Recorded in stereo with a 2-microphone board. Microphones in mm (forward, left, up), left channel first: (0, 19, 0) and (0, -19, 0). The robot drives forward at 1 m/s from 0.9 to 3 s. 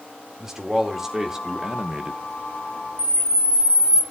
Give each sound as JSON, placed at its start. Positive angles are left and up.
{"t": 0.4, "sound": "a man speaking", "side_deg": -10, "distance_m": 2.0}
{"t": 3.0, "sound": "a camera shutter", "side_deg": -20, "distance_m": 1.6}